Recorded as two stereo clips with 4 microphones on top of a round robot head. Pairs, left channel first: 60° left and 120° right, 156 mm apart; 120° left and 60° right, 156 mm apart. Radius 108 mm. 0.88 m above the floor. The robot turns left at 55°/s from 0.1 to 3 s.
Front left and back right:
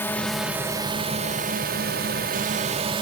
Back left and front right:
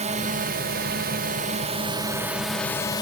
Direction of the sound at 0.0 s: 15° right.